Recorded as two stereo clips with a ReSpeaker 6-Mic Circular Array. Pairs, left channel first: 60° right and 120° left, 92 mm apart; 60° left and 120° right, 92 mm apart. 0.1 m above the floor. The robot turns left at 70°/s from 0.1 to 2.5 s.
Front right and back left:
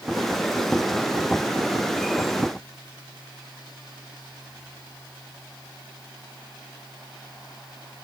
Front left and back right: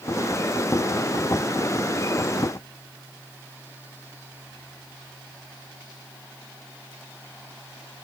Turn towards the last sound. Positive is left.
No sound to turn to.